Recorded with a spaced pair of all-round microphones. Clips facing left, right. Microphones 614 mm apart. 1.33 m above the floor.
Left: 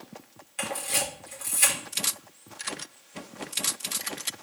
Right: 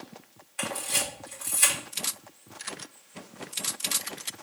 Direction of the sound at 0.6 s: 55° left (ahead or behind).